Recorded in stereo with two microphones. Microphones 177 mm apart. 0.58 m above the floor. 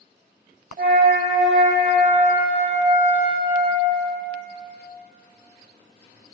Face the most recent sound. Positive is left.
turn(degrees=-55)  # may be behind; listen again after turning